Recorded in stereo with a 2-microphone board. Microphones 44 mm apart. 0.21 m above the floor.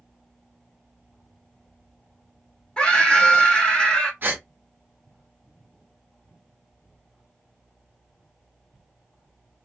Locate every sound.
2.8 s a scream: 20° left (ahead or behind), 1.2 m
4.2 s a gasp: 50° right (ahead or behind), 0.9 m